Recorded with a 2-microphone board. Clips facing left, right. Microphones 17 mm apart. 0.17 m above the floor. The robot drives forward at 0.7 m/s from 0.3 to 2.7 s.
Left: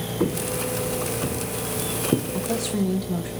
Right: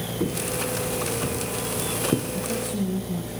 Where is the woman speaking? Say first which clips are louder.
Left 2 dB; 70° left (ahead or behind), 6 m.